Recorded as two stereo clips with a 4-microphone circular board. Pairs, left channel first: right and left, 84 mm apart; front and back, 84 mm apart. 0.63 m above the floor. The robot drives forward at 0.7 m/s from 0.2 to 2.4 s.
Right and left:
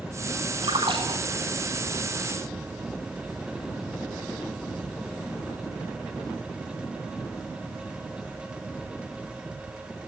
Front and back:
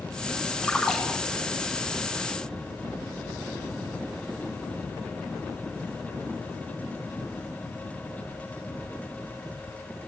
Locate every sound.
0.6 s a splash: 85° left, 6.5 m; by 1.6 s 95° left, 6.5 m